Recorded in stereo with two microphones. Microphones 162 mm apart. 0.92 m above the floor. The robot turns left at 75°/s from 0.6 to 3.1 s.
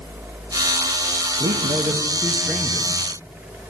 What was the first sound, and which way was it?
A man speaking, 110° right.